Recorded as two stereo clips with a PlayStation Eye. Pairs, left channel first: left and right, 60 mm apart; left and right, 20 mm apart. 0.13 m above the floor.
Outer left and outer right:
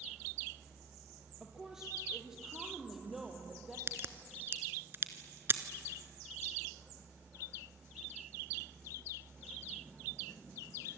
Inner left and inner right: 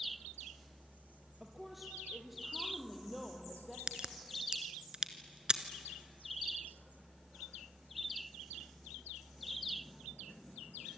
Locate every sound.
1.4 s a woman speaking: 10° right (ahead or behind), 3 m; by 3.8 s 5° right (ahead or behind), 4.5 m
3.9 s a crack: 45° right (ahead or behind), 1.2 m